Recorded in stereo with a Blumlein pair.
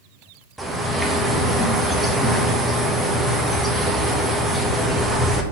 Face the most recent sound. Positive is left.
turn(degrees=-5)